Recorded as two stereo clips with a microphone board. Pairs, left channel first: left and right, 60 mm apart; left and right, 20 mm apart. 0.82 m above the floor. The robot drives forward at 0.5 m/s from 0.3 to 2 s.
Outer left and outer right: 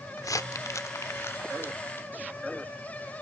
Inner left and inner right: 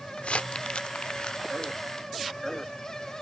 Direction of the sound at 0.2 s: 65° left (ahead or behind).